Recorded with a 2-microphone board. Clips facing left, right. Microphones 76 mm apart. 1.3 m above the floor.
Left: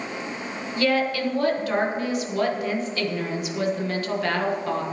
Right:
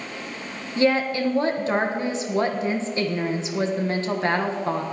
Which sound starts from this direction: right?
A woman speaking, at 0.8 s.